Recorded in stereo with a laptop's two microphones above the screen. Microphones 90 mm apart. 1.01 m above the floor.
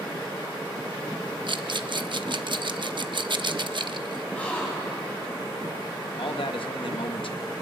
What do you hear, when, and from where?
1.5 s a rattle: 60° right (ahead or behind), 0.7 m
4.3 s a gasp: 15° left (ahead or behind), 4.5 m
6.2 s a man speaking: 70° left (ahead or behind), 1.3 m